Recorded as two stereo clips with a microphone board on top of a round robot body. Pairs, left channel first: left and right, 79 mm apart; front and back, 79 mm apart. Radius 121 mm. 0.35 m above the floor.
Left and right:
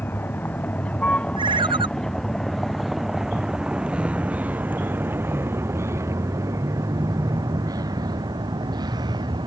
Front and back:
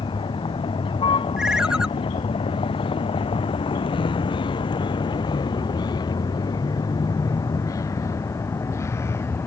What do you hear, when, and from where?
0.0 s a vehicle: 20° left; by 9.5 s 60° right
1.4 s a ringtone: 95° right